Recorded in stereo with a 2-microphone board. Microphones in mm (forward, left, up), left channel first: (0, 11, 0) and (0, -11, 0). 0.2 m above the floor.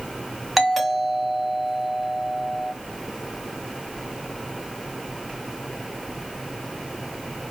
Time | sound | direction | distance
0.6 | a doorbell | centre (ahead or behind) | 1.6 m